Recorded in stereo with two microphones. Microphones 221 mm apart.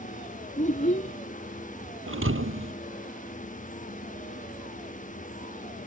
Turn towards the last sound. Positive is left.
turn(degrees=-70)  # may be behind; listen again after turning